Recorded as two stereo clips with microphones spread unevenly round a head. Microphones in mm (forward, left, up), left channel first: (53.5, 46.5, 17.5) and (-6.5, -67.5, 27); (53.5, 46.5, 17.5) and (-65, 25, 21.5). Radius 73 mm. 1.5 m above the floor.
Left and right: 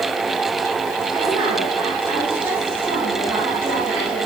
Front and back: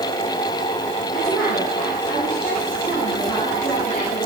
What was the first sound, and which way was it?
A woman speaking, 40° right.